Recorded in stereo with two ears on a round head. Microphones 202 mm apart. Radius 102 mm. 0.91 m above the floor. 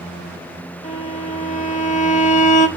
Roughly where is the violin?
Left.